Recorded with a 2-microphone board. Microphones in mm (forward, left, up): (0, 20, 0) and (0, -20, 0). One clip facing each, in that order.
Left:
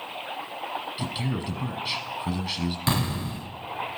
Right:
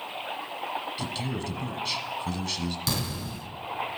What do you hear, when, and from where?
1.0 s a man speaking: 15° left (ahead or behind), 1.2 m
2.9 s an explosion: 30° left (ahead or behind), 1.0 m